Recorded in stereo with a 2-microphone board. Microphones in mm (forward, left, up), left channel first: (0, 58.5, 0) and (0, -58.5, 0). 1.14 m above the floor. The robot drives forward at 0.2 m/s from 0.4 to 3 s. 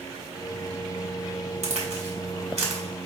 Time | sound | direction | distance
1.6 | a crack | 65° right (ahead or behind) | 1.5 m